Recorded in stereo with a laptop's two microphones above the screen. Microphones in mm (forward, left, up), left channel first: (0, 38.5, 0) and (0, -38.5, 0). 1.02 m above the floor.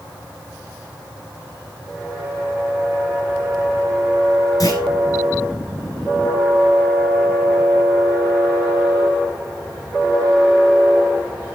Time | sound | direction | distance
4.6 | a clunk | 50° left (ahead or behind) | 4 m